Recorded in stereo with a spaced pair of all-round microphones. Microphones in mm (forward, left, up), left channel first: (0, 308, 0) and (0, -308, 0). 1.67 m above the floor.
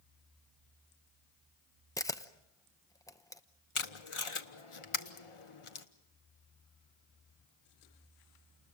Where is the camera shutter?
5° left (ahead or behind), 0.8 m.